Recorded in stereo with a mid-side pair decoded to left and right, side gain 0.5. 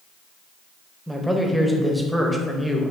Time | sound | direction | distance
1.1 | a man speaking | straight ahead | 0.8 m